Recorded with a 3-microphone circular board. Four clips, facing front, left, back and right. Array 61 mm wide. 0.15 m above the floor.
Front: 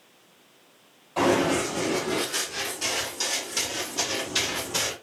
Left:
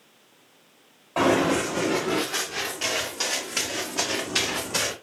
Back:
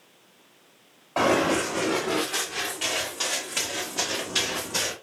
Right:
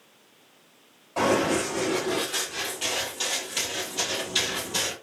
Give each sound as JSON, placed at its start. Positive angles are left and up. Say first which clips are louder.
{"t": 1.2, "sound": "running footsteps", "louder": "left 2 dB, even", "azimuth_deg": 145, "distance_m": 3.0}